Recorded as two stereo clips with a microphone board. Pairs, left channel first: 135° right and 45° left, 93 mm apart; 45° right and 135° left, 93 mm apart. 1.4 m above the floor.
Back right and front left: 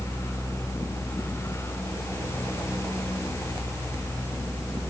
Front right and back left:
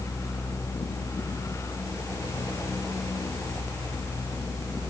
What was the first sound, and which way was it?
Only background noise.